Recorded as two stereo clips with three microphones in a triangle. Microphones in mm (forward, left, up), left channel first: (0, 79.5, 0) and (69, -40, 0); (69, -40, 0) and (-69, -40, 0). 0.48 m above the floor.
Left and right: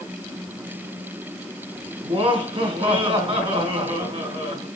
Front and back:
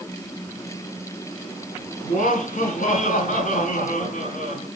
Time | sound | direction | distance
2.0 | laughter | 10° right | 5 m